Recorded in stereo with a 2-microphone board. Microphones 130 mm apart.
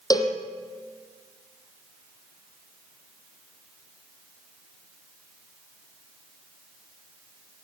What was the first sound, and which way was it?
A cowbell, 30° left (ahead or behind).